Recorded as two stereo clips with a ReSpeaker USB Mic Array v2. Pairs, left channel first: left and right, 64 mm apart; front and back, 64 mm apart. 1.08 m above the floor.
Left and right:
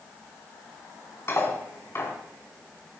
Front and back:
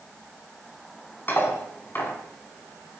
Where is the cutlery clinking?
50° left, 5.5 m.